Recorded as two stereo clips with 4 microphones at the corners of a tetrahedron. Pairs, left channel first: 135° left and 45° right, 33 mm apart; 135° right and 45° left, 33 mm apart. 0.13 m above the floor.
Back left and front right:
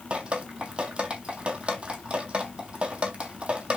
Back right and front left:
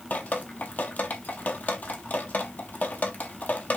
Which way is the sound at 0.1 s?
105° right.